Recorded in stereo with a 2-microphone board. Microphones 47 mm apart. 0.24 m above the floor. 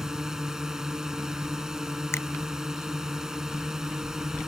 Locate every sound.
0.0 s a drone: 15° right (ahead or behind)
2.1 s a finger snap: 70° left (ahead or behind)